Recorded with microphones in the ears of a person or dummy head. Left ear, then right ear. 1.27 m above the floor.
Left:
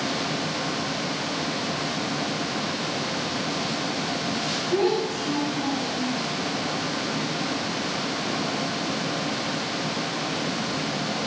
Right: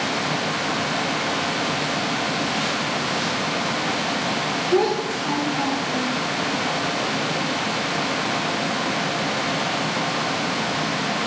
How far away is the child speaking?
About 0.5 m.